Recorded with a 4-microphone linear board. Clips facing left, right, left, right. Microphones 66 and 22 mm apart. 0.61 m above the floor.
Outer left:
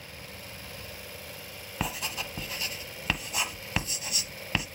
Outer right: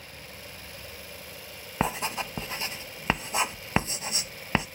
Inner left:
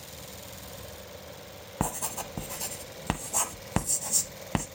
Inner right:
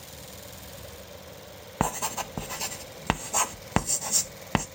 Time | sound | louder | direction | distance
1.8 | writing | outer right 6 dB, inner right 4 dB | 30° right (ahead or behind) | 0.9 m